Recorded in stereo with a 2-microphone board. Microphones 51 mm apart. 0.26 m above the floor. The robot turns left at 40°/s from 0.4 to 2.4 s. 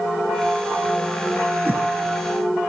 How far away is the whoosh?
About 1.3 m.